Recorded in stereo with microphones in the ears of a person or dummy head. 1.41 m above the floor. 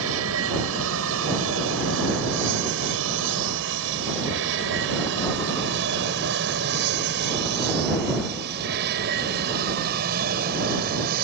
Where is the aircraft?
75° right (ahead or behind); by 11.2 s 50° right (ahead or behind).